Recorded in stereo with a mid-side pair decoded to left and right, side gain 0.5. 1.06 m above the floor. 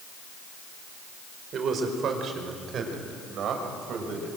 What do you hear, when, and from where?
1.5 s a man speaking: 55° right, 4.5 m; by 4.3 s 60° right, 6 m